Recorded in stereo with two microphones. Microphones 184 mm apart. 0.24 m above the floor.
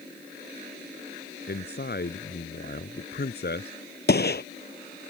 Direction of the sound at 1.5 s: 60° left (ahead or behind).